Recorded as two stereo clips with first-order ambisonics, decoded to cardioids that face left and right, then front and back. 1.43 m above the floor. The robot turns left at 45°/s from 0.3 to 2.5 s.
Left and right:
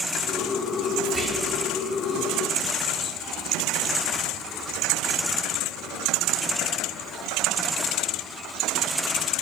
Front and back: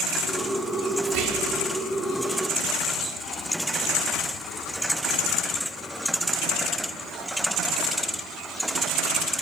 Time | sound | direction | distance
1.1 | whispering | 170° right | 0.7 m